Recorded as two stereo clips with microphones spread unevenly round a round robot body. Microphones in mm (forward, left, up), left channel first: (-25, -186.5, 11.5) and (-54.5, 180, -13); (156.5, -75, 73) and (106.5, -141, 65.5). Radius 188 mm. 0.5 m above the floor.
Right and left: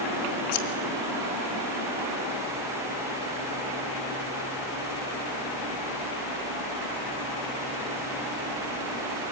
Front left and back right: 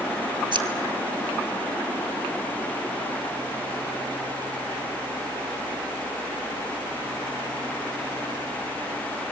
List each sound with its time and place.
0.5 s scissors: 95° right, 1.9 m